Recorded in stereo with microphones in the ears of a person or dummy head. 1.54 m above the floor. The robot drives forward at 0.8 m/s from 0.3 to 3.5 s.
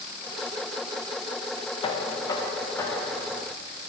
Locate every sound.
1.8 s knocking: 30° left (ahead or behind), 0.7 m; by 3.5 s 10° left (ahead or behind), 1.9 m